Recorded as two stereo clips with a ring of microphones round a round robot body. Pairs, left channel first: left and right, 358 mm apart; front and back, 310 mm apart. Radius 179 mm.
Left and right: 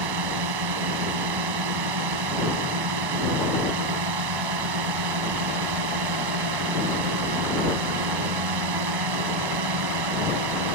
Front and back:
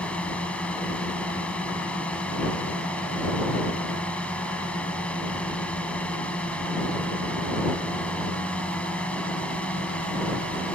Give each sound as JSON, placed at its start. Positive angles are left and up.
{"t": 0.0, "sound": "a drone", "azimuth_deg": -85}